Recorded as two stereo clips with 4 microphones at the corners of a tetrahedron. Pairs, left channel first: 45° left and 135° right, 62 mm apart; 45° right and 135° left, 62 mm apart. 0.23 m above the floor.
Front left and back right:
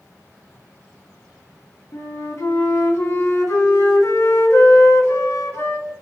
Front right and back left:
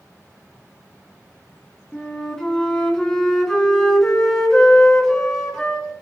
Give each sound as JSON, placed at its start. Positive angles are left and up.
{"t": 1.9, "sound": "a flute", "azimuth_deg": 30, "distance_m": 2.5}